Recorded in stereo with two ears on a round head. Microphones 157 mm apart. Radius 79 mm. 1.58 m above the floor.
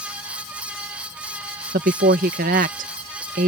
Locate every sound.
1.7 s a woman speaking: 50° right (ahead or behind)